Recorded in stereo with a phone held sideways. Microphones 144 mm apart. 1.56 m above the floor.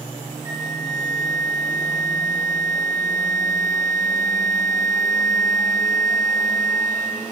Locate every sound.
0.5 s a flute: 30° right (ahead or behind), 0.6 m